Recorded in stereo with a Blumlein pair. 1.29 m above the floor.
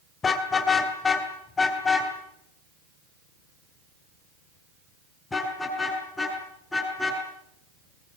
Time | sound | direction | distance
0.2 | a car horn | 20° left | 2.5 m